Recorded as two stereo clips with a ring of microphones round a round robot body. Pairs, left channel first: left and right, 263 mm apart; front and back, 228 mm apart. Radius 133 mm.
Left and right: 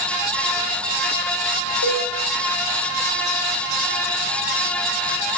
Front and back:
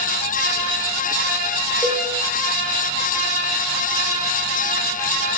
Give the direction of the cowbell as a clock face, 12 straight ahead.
9 o'clock.